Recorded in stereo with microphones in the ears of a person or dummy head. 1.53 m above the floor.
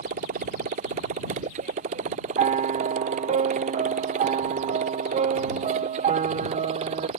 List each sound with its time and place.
0.0 s a motorcycle: 40° right (ahead or behind); by 7.2 s 30° right (ahead or behind)
2.4 s a piano: 35° right (ahead or behind)